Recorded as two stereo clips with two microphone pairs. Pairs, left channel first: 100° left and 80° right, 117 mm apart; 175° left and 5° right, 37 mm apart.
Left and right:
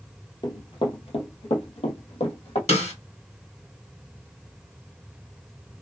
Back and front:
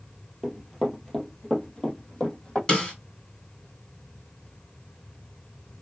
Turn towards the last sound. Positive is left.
turn(degrees=110)